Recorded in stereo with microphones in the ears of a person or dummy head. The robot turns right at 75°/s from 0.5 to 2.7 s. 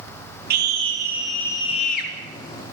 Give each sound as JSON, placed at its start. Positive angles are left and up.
{"t": 0.5, "sound": "a scream", "azimuth_deg": -55, "distance_m": 3.0}